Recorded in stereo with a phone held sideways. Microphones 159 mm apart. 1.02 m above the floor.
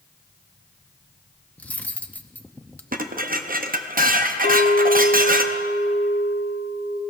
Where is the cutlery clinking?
10° left (ahead or behind), 0.5 m.